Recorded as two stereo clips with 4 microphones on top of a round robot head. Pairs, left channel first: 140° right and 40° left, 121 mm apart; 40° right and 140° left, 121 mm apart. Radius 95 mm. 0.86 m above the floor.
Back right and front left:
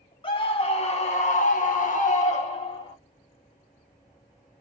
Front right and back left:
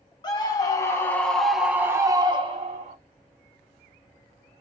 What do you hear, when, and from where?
0.2 s a scream: 95° right, 1.3 m; by 3.0 s 170° left, 1.1 m